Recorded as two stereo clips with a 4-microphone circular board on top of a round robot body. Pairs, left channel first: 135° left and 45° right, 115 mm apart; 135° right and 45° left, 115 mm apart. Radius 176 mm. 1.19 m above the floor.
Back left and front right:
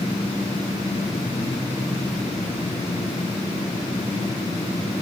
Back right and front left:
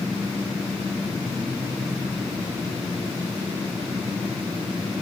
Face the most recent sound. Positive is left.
No sound to turn to.